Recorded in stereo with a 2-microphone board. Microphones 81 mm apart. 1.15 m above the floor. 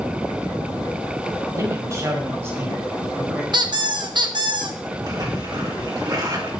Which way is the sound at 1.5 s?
40° right (ahead or behind).